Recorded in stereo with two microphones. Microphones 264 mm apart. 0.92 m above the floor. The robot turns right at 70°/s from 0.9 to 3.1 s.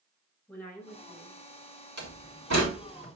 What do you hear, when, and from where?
0.5 s a woman speaking: 175° left, 6.5 m; by 1.9 s 115° right, 6.5 m
2.0 s a door slam: 65° right (ahead or behind), 3.5 m; by 3.1 s 40° right (ahead or behind), 3.5 m